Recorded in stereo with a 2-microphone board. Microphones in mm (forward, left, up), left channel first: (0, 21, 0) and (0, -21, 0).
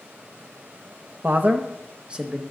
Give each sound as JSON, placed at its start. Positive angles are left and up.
{"t": 1.2, "sound": "a man speaking", "side_deg": -45, "distance_m": 0.7}